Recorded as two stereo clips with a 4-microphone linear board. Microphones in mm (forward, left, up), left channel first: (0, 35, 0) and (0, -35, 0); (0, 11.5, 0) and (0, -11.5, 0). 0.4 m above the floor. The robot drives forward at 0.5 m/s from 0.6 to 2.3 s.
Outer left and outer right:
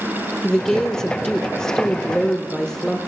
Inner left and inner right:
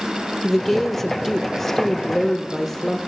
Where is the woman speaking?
10° left (ahead or behind), 1.0 m; by 3.0 s 5° left (ahead or behind), 1.0 m.